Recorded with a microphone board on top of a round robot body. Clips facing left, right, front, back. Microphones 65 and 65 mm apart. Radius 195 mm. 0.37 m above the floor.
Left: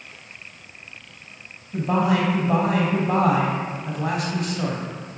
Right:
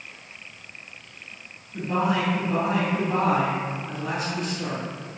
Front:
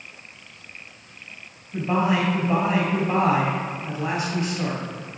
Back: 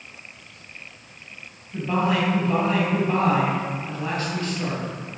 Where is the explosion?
No explosion in this recording.